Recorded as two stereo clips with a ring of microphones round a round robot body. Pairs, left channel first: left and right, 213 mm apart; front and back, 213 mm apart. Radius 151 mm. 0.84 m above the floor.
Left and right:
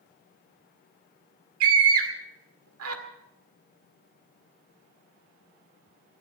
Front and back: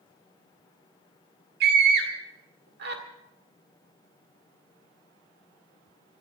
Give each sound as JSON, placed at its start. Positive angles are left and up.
{"t": 1.6, "sound": "a scream", "azimuth_deg": -120, "distance_m": 2.0}